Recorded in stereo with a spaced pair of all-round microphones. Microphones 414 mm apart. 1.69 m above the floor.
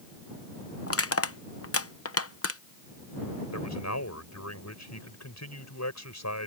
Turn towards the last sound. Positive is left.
turn(degrees=40)  # may be behind; listen again after turning